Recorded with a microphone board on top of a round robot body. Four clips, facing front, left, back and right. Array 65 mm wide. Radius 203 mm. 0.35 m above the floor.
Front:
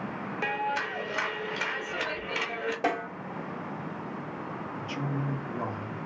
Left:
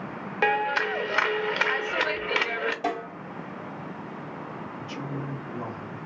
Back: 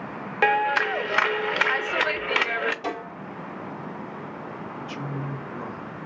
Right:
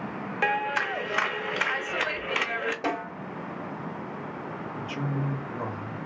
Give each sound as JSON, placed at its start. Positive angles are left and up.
{"t": 0.4, "sound": "a clap", "azimuth_deg": 165, "distance_m": 0.9}
{"t": 2.8, "sound": "a snare drum", "azimuth_deg": -25, "distance_m": 3.0}
{"t": 4.8, "sound": "a man speaking", "azimuth_deg": -40, "distance_m": 1.7}